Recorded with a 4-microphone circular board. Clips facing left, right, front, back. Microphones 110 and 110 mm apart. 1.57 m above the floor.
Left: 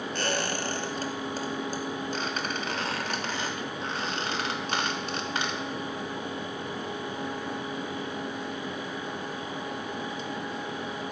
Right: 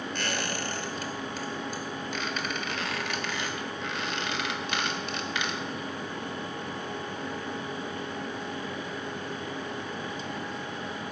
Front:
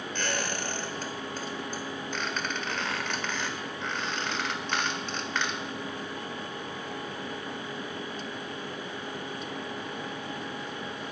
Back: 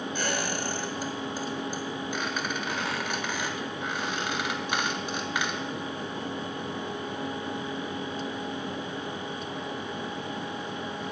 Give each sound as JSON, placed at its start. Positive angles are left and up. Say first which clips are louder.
{"t": 0.1, "sound": "a squeak", "louder": "left 4 dB, back 1 dB", "azimuth_deg": 105, "distance_m": 1.5}